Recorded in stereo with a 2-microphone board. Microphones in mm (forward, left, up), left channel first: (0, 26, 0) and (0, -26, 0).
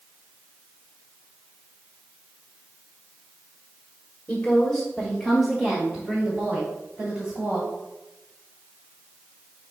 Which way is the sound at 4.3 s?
20° left (ahead or behind).